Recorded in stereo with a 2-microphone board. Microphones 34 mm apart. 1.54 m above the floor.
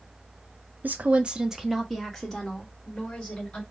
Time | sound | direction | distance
0.8 | a woman speaking | 55° right (ahead or behind) | 0.6 m